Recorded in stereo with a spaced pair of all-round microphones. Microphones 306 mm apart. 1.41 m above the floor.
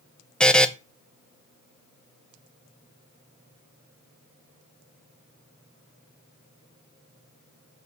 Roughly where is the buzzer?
Centre.